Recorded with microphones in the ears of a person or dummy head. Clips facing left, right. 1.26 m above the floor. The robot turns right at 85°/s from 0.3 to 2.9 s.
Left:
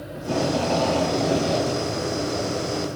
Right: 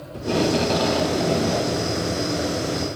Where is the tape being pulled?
65° right, 1.0 m; by 1.9 s 70° left, 1.0 m.